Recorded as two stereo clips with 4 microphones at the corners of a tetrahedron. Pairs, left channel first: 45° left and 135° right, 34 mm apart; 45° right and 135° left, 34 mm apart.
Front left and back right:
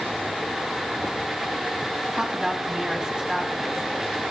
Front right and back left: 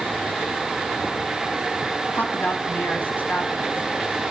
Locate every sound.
2.1 s a woman speaking: 65° right, 4.5 m